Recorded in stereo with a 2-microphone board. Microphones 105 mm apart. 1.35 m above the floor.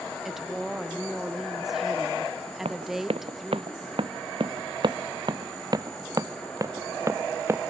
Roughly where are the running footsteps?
Right.